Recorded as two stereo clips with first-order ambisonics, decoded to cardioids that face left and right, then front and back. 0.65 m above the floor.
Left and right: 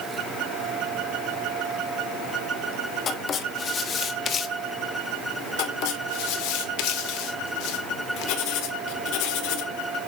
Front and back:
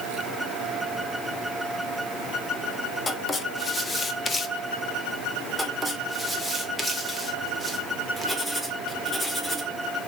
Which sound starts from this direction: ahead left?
Writing, at 3.1 s.